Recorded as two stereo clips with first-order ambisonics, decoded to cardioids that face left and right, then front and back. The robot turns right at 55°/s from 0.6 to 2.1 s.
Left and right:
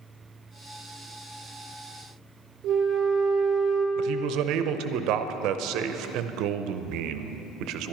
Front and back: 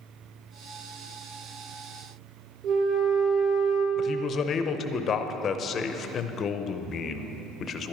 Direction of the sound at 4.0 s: 60° right.